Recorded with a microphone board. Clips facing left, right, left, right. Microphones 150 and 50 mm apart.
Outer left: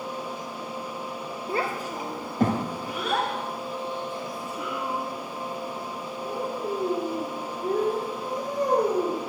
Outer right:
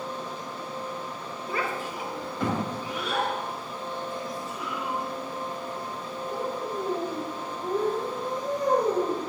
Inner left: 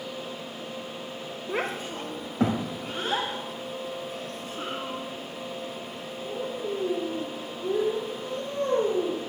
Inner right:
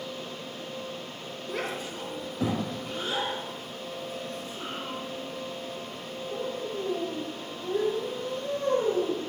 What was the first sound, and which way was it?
A child speaking, 30° left (ahead or behind).